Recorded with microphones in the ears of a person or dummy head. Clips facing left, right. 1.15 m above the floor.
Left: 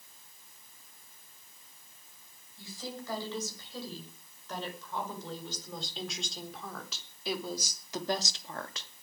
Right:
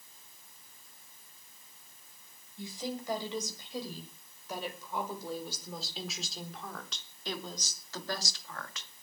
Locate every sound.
2.6 s a woman speaking: 10° right (ahead or behind), 6.5 m; by 8.9 s 40° left (ahead or behind), 2 m